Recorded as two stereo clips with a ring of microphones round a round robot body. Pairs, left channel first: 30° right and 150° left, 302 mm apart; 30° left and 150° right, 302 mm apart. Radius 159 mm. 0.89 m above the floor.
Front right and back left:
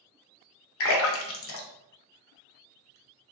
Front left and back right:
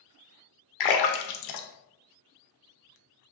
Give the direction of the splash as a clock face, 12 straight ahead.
11 o'clock.